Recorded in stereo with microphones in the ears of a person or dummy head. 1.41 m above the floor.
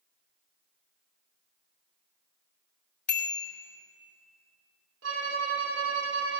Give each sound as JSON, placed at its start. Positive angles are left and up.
{"t": 3.1, "sound": "a bicycle bell", "side_deg": 5, "distance_m": 2.5}
{"t": 5.0, "sound": "a violin", "side_deg": -75, "distance_m": 2.5}